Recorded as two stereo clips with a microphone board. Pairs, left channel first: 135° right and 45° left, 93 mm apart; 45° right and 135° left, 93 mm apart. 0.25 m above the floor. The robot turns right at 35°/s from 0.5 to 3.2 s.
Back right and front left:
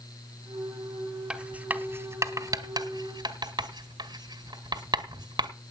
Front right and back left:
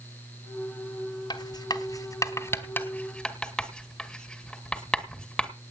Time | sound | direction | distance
1.3 | writing | 35° right | 2 m